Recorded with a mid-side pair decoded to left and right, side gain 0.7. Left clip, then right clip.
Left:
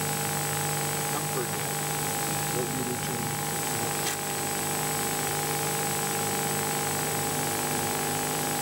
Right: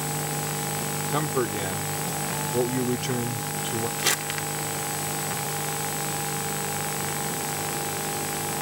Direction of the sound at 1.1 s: 35° right.